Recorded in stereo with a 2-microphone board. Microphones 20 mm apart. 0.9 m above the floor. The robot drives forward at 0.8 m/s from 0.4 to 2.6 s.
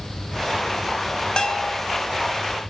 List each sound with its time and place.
1.4 s a bell: 35° left (ahead or behind), 2.5 m; by 1.8 s 40° left (ahead or behind), 2 m